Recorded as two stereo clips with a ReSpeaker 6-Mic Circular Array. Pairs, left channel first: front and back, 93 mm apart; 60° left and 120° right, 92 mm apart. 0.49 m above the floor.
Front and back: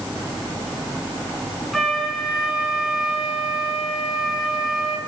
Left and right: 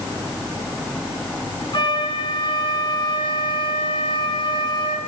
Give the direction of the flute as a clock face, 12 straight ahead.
9 o'clock.